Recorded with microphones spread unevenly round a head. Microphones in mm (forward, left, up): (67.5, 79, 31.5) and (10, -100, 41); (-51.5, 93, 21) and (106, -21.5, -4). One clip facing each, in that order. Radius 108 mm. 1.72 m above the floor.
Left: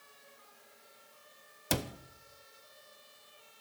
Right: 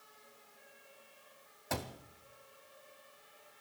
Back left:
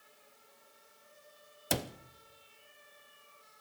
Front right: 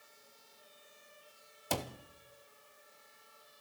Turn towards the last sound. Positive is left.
turn(degrees=100)